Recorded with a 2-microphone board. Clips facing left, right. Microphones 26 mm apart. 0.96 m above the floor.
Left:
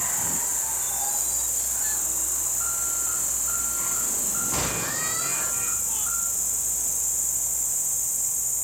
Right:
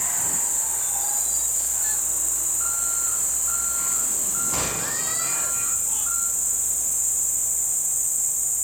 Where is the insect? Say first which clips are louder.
Right 2 dB; 55° left (ahead or behind), 5 m.